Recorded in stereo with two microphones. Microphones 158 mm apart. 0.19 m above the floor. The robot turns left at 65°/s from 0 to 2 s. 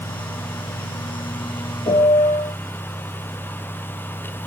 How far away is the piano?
About 2 m.